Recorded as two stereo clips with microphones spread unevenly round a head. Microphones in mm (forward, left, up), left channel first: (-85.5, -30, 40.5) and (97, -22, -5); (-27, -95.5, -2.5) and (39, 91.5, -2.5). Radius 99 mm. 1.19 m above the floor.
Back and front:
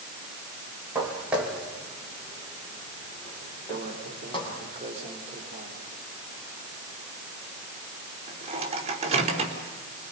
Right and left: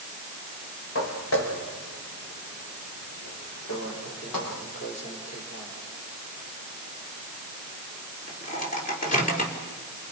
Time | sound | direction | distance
0.9 | footsteps | 80° right | 5 m
3.7 | a microwave | 55° right | 4 m